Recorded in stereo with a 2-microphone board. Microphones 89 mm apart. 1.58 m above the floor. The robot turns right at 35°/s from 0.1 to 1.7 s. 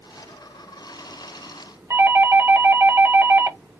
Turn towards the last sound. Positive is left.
turn(degrees=-25)  # may be behind; listen again after turning